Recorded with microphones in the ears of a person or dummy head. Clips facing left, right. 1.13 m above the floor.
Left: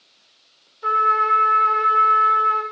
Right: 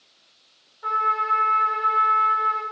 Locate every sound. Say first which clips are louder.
0.8 s a trumpet: left 5 dB; 35° left (ahead or behind), 0.8 m